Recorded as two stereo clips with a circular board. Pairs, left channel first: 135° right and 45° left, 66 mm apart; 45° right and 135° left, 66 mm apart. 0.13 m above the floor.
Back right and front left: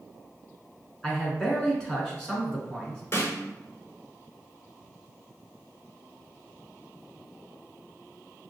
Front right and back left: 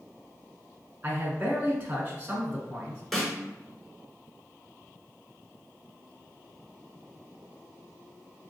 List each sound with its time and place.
1.0 s a man speaking: 160° left, 1.2 m
3.1 s a snare drum: 130° right, 1.0 m